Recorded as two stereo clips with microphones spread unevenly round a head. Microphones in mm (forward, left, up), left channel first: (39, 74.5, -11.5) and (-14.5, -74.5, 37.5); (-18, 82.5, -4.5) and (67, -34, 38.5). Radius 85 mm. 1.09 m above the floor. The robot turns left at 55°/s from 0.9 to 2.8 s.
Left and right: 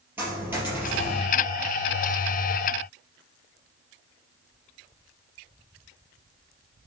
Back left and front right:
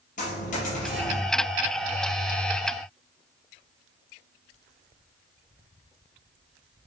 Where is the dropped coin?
Straight behind, 3.5 m; by 1.2 s 160° left, 3.5 m.